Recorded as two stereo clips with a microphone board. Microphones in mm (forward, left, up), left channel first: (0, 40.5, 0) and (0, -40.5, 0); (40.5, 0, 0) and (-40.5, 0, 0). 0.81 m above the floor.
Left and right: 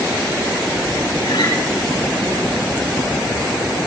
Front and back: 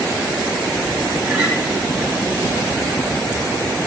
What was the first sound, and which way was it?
A guitar, 95° left.